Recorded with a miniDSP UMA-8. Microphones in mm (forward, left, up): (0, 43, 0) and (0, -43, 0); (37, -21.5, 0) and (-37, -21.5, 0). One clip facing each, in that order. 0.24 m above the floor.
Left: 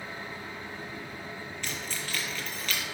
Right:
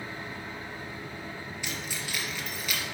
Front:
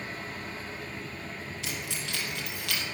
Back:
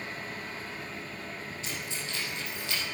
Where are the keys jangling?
10° right, 3.5 m.